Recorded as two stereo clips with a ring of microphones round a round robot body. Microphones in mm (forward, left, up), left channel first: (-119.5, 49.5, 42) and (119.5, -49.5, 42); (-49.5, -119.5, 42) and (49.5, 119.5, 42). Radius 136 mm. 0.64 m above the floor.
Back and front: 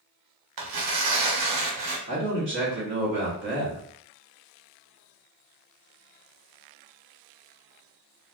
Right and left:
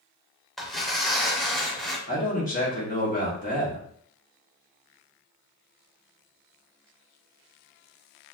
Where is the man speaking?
60° right, 1.5 m.